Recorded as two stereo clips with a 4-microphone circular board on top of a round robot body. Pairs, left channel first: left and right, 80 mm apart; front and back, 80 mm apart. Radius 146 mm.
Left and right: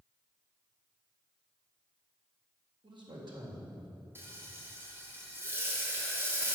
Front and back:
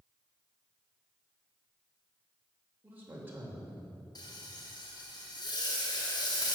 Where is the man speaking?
115° right, 3.5 m.